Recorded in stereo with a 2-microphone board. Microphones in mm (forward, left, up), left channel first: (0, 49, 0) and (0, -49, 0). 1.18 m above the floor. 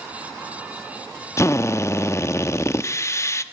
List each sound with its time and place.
1.4 s a drill: 30° left (ahead or behind), 0.9 m